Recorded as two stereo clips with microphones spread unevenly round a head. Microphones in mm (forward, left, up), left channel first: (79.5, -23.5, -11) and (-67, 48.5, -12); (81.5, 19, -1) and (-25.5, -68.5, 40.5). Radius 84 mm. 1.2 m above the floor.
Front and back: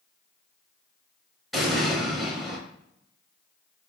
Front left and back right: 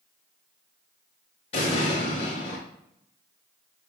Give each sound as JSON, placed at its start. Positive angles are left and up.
{"t": 1.5, "sound": "an explosion", "azimuth_deg": 65, "distance_m": 1.0}